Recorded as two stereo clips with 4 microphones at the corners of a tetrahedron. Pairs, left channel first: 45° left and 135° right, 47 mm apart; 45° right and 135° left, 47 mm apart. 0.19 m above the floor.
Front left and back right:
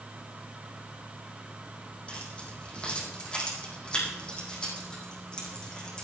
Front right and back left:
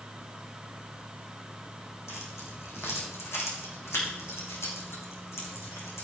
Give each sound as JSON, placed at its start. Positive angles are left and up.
{"t": 2.1, "sound": "keys jangling", "azimuth_deg": -25, "distance_m": 5.0}